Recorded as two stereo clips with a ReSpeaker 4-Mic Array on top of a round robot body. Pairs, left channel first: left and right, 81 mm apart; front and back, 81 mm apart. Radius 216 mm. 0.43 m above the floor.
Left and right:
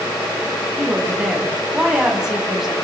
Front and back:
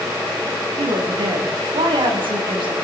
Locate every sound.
0.8 s a woman speaking: 175° right, 4.5 m